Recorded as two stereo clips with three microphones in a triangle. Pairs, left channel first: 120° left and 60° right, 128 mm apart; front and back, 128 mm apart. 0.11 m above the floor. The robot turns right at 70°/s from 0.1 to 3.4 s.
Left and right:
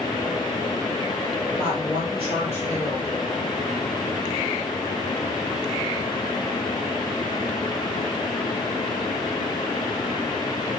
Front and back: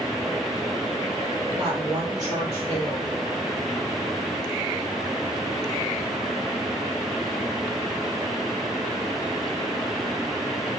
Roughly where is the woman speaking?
Behind right.